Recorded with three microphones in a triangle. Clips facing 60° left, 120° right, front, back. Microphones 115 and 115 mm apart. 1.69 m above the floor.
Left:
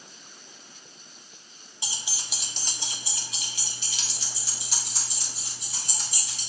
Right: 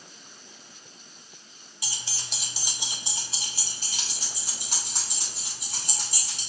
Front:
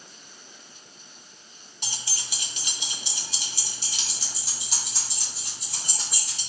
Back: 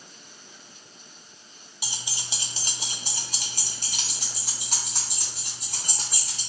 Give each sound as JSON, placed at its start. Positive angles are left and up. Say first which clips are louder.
{"t": 1.8, "sound": "keys jangling", "louder": "left 1 dB, even", "azimuth_deg": 105, "distance_m": 0.8}